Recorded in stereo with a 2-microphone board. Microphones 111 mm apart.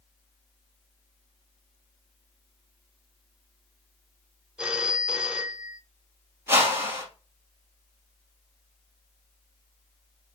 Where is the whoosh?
20° right (ahead or behind), 1.6 m.